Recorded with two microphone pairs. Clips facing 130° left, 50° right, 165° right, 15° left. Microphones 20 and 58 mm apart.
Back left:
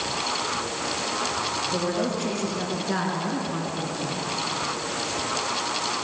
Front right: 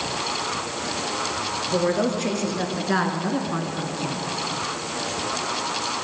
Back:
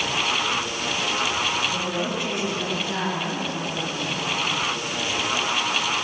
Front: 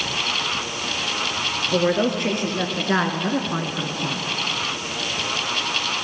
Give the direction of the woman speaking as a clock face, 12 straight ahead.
12 o'clock.